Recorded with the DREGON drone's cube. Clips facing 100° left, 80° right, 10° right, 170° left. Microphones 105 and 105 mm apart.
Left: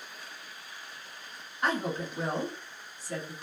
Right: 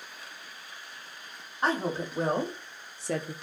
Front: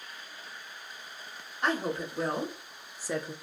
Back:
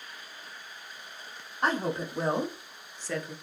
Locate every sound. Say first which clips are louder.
1.6 s a woman speaking: right 2 dB, back 2 dB; 135° right, 0.9 m; by 3.3 s 70° right, 0.5 m